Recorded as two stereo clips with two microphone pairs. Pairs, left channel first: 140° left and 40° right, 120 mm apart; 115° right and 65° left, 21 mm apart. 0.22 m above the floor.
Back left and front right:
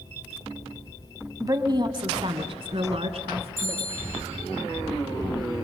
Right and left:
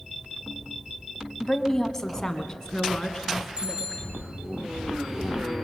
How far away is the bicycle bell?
About 8.5 m.